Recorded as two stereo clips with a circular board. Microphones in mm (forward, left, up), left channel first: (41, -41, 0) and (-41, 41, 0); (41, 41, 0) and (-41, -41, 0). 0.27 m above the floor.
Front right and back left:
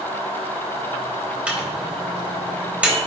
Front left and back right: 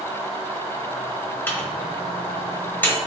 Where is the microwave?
75° left, 0.9 m.